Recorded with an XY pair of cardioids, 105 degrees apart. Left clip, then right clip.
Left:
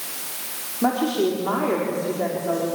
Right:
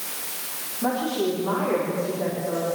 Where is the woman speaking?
50° left, 5 m.